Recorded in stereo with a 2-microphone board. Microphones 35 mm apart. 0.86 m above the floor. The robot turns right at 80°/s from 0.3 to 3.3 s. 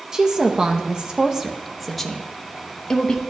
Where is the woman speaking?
20° right (ahead or behind), 0.6 m; by 3.2 s 20° left (ahead or behind), 0.6 m.